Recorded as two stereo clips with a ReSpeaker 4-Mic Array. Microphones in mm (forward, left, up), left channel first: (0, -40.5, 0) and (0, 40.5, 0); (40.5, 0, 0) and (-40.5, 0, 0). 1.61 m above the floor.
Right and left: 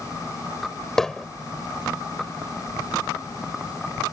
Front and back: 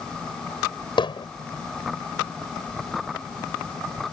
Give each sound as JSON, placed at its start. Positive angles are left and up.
{"t": 1.0, "sound": "hammering", "azimuth_deg": -5}